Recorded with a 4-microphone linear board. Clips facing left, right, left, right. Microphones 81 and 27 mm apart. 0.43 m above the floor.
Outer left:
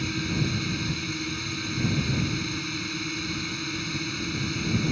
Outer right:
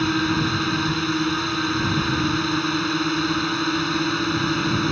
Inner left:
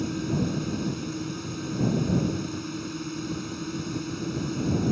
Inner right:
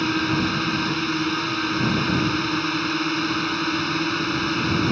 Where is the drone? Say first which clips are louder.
Outer right 8 dB, inner right 7 dB; 60° right (ahead or behind).